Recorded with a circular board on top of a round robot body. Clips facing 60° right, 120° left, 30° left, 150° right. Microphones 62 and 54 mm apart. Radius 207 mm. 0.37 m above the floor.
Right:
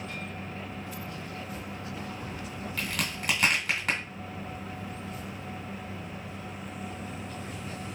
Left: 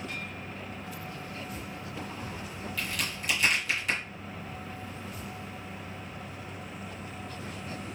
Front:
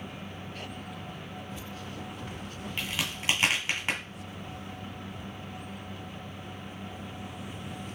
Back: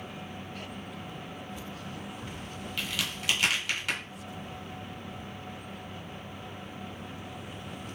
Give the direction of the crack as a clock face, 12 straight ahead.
1 o'clock.